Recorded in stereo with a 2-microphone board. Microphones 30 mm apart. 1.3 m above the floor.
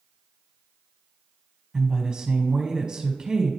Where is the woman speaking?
30° right (ahead or behind), 1.5 m.